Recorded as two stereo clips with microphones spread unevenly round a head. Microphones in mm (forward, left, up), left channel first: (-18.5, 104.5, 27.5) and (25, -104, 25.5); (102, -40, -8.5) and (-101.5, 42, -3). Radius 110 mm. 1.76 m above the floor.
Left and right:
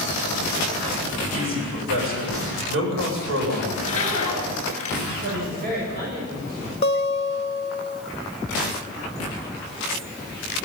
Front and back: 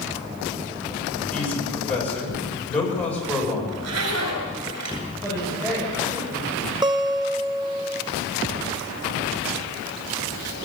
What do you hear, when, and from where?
1.3 s a man speaking: 105° right, 8.5 m
3.7 s a zipper: 160° left, 8.5 m
5.2 s a woman speaking: 125° right, 10 m
6.8 s a guitar: 115° left, 1.2 m